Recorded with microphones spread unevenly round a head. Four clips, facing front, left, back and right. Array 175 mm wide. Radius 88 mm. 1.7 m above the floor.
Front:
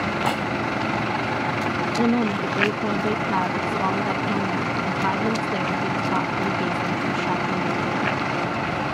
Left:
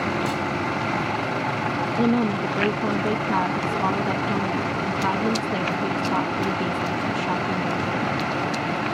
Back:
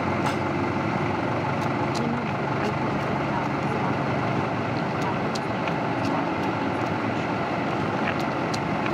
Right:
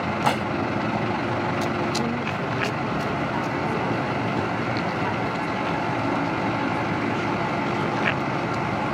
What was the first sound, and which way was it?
Dishes clattering, 65° right.